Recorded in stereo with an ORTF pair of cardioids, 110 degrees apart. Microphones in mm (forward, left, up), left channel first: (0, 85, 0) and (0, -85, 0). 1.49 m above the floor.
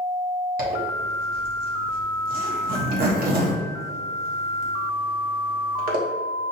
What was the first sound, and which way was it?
A zipper, 60° right.